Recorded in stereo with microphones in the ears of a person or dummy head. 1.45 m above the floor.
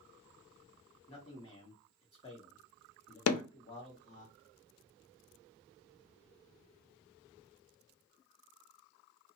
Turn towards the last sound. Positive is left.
turn(degrees=85)